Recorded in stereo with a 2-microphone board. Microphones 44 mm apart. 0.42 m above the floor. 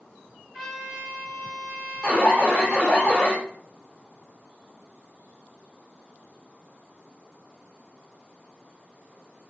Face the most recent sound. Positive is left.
turn(degrees=20)  # may be behind; listen again after turning